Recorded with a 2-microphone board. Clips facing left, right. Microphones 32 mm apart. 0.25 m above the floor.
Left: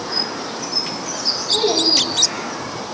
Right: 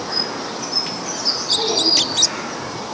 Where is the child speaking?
70° left (ahead or behind), 6 m; by 2.9 s 60° left (ahead or behind), 6 m.